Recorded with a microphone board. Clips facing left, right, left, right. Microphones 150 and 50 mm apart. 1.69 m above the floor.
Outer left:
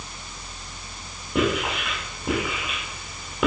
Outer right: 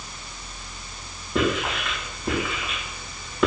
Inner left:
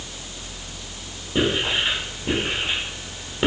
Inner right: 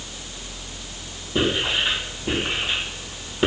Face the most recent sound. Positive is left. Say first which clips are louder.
# even, even
turn(degrees=5)  # may be behind; listen again after turning